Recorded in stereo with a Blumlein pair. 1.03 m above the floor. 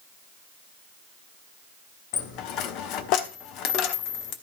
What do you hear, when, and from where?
2.1 s a dropped coin: 40° left, 1.1 m